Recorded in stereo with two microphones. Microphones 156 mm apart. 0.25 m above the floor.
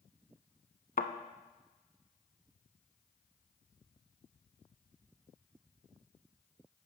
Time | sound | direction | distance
1.0 | a thud | 70° left (ahead or behind) | 0.7 m